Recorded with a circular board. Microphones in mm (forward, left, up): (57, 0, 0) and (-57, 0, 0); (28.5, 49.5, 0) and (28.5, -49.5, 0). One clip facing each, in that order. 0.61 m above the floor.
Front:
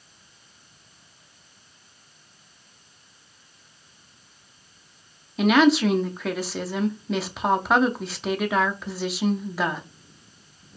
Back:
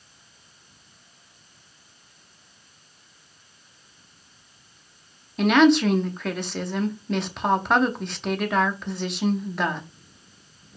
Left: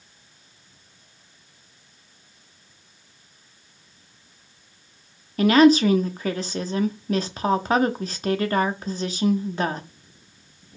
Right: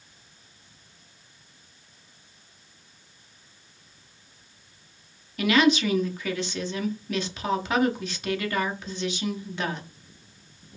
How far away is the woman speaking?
About 0.7 m.